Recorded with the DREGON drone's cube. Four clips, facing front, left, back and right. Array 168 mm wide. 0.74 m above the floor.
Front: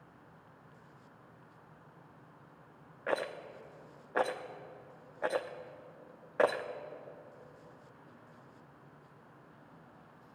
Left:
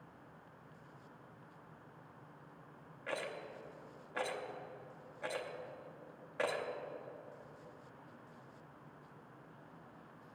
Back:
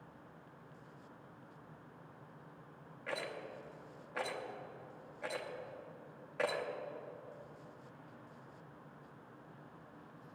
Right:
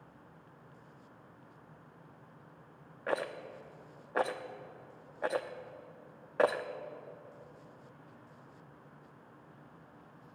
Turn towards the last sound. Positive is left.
turn(degrees=-45)